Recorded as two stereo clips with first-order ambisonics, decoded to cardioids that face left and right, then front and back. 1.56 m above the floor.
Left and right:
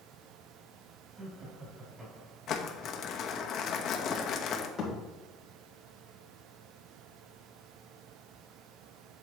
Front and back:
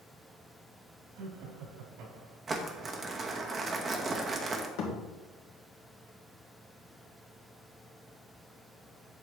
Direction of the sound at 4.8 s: 20° left.